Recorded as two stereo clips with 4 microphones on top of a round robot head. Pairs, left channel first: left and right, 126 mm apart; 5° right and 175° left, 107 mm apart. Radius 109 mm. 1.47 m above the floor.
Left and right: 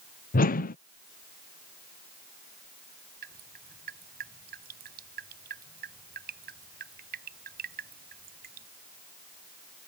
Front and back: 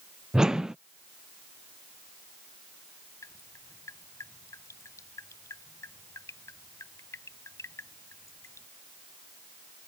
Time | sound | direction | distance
0.3 | a whoosh | 90° left | ?
3.2 | dripping | 75° right | ?